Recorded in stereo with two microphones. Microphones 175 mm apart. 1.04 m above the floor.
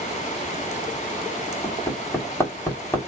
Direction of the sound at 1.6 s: 15° left (ahead or behind).